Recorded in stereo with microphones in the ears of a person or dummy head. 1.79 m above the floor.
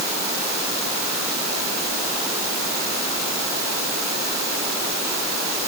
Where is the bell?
I don't hear a bell.